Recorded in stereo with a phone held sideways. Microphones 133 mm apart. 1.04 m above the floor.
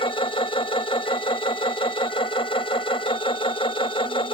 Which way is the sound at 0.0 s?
45° left (ahead or behind).